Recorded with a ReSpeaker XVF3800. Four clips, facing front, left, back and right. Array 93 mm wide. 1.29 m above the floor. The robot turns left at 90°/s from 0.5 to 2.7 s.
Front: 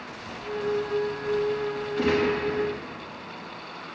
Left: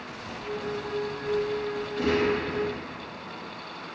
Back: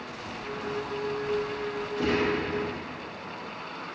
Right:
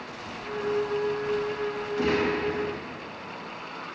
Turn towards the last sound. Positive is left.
turn(degrees=-85)